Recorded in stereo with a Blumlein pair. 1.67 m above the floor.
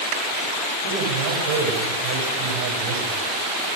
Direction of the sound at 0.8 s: 40° right.